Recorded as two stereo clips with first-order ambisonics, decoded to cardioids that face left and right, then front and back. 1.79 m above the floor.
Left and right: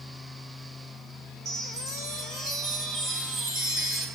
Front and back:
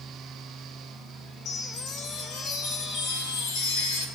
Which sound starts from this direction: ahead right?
A chime, at 1.4 s.